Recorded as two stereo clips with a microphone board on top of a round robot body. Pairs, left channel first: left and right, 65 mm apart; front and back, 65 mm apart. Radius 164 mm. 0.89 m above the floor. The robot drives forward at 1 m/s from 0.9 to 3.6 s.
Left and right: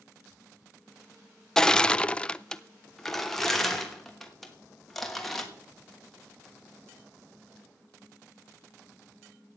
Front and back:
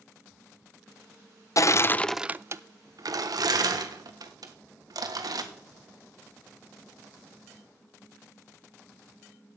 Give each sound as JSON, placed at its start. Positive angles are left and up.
{"t": 1.6, "sound": "crushing", "azimuth_deg": 10, "distance_m": 0.8}